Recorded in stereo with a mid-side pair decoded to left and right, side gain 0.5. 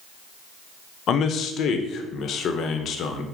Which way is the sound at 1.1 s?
60° left.